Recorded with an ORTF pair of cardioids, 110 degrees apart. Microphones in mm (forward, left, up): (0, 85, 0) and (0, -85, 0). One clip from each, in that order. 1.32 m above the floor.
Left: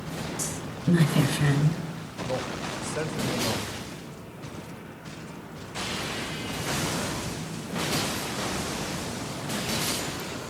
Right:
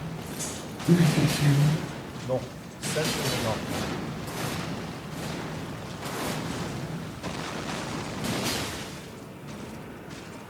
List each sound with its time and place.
0.4 s a woman speaking: 65° left, 6 m
2.2 s a man speaking: 5° right, 2.5 m